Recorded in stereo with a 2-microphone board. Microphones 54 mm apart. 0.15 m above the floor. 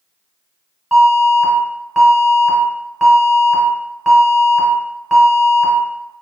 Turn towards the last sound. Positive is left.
turn(degrees=-5)  # may be behind; listen again after turning